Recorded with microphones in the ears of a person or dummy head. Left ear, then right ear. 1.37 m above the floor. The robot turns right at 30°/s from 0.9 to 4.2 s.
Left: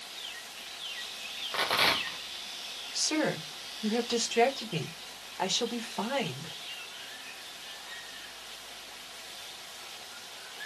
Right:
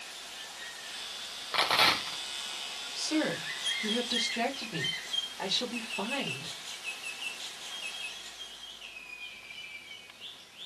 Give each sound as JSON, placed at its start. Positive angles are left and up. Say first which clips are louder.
{"t": 1.5, "sound": "a rattle", "louder": "right 2 dB", "side_deg": -15, "distance_m": 0.8}
{"t": 3.0, "sound": "a woman speaking", "louder": "left 2 dB", "azimuth_deg": 80, "distance_m": 1.5}